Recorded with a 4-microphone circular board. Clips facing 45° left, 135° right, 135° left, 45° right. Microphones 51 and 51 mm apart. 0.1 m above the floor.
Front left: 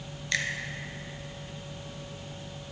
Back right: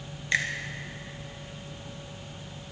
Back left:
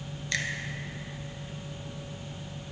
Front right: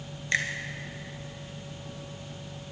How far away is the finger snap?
About 1.1 m.